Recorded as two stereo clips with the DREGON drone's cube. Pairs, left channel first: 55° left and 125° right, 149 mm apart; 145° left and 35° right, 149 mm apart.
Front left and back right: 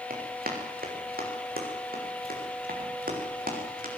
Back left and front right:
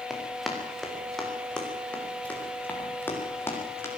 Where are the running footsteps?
125° right, 8 m; by 3.9 s 140° right, 9.5 m.